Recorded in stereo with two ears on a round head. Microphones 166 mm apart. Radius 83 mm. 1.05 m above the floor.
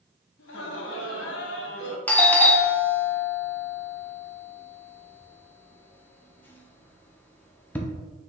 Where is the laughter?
65° left (ahead or behind), 1.1 m.